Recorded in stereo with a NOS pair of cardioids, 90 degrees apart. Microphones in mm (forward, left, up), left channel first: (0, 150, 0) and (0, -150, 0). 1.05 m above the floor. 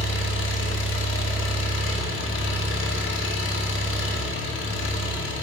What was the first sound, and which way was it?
An engine running, 45° left.